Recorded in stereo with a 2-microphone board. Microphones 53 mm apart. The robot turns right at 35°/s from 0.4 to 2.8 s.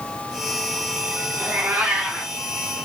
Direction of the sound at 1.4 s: 35° right.